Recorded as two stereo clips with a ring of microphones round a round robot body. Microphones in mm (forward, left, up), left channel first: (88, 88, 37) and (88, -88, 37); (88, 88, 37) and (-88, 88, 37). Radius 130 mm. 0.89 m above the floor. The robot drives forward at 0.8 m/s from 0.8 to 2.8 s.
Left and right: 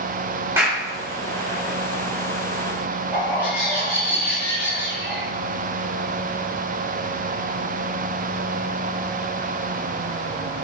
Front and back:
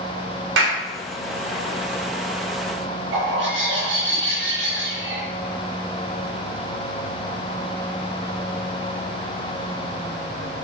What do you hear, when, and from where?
0.6 s a clap: 170° right, 2 m
3.1 s a bird: 170° right, 4 m